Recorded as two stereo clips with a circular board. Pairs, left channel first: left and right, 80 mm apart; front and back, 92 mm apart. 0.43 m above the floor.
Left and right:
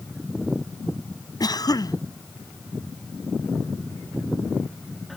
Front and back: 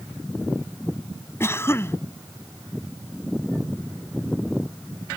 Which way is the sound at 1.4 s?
60° left.